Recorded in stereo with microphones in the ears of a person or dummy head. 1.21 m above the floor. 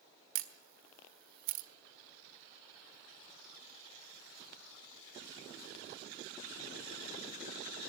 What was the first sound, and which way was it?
A camera shutter, 55° right (ahead or behind).